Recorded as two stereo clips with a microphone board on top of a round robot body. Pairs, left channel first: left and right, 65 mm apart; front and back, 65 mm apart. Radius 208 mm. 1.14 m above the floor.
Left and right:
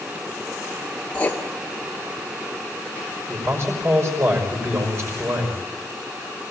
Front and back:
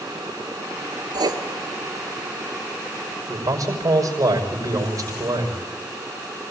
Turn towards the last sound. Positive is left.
turn(degrees=-145)